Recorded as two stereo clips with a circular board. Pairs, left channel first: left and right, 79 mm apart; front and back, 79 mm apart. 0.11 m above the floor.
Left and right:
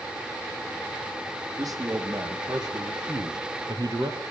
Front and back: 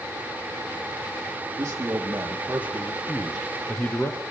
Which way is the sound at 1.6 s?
130° right.